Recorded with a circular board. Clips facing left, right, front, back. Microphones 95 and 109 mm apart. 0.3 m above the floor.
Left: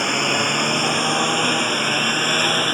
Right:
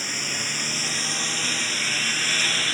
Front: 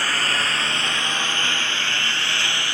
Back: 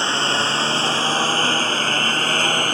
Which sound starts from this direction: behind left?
A lawn mower, at 0.0 s.